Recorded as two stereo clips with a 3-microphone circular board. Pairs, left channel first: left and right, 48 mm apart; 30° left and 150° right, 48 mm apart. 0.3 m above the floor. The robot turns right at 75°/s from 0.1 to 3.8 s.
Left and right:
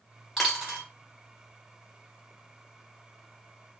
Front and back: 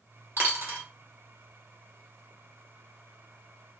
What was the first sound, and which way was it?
A dropped coin, straight behind.